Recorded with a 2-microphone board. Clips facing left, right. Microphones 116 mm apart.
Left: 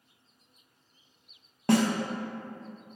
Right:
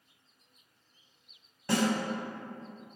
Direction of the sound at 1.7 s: 60° left (ahead or behind).